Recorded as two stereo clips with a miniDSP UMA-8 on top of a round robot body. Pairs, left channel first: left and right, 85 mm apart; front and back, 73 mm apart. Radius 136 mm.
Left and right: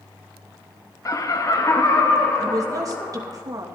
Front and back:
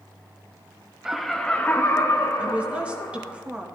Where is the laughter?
100° left, 0.9 m; by 3.4 s 20° left, 1.7 m.